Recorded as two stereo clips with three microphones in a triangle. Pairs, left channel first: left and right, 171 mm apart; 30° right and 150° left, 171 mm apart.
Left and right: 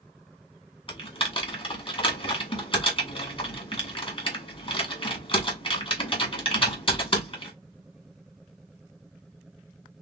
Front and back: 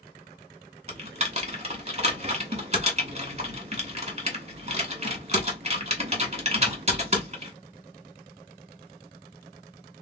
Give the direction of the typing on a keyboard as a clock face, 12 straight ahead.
8 o'clock.